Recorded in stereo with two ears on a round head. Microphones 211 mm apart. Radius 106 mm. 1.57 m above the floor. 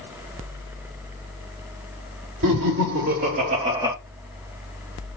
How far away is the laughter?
About 2 m.